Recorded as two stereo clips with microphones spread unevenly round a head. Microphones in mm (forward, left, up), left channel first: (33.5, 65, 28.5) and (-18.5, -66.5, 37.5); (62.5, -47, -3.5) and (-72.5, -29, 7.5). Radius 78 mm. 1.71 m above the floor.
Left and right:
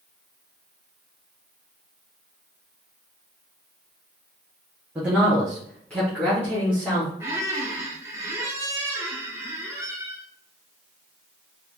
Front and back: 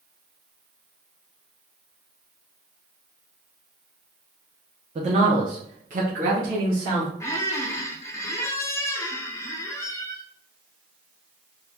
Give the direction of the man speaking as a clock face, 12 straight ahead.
6 o'clock.